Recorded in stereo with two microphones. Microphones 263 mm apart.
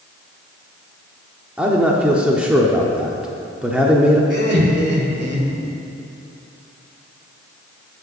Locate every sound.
1.6 s a man speaking: 5° right (ahead or behind), 0.9 m
4.3 s laughter: 40° right (ahead or behind), 1.8 m